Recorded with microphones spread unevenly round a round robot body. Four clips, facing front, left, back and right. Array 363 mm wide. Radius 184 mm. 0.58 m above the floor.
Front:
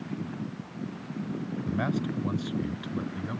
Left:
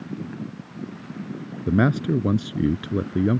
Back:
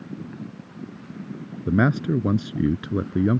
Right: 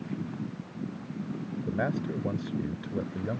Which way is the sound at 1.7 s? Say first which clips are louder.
Left 11 dB, back 10 dB; 130° left.